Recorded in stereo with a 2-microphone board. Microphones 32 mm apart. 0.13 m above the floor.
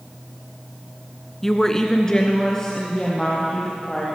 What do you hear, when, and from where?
1.4 s a woman speaking: 10° left (ahead or behind), 1.0 m; by 4.1 s 20° left (ahead or behind), 4 m